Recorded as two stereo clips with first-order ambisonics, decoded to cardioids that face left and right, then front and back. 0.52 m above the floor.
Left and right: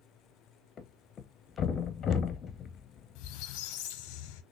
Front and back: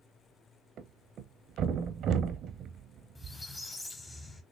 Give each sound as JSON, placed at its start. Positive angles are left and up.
{"t": 0.8, "sound": "a thud", "azimuth_deg": 140, "distance_m": 0.6}
{"t": 3.1, "sound": "a squeak", "azimuth_deg": 80, "distance_m": 0.7}